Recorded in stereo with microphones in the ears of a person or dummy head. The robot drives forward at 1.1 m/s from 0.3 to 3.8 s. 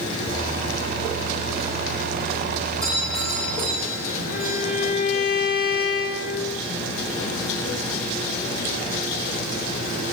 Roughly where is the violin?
Left.